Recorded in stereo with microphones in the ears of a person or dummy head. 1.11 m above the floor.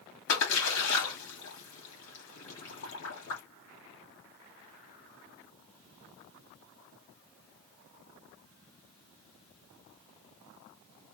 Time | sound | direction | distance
0.3 | a splash | 70° left (ahead or behind) | 2.5 m